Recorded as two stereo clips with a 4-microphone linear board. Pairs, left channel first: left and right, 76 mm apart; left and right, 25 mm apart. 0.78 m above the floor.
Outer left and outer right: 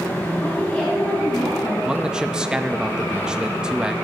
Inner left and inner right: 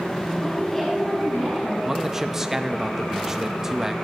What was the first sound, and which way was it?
A woman speaking, 25° left (ahead or behind).